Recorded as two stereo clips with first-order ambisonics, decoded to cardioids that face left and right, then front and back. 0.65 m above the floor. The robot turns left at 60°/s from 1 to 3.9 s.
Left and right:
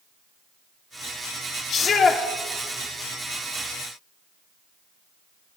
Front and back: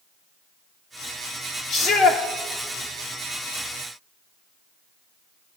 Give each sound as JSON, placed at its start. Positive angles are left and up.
{"t": 1.7, "sound": "a shout", "azimuth_deg": 55, "distance_m": 1.3}